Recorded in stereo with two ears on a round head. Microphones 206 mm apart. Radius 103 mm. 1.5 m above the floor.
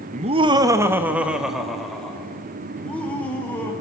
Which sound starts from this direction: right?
Laughter, at 0.1 s.